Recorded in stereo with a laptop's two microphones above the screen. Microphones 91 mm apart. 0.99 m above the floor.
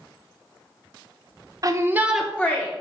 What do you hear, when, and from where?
1.6 s a shout: 40° right (ahead or behind), 0.9 m; by 2.7 s 25° left (ahead or behind), 1.1 m